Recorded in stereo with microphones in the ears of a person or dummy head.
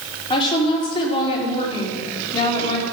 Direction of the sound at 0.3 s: 25° left (ahead or behind).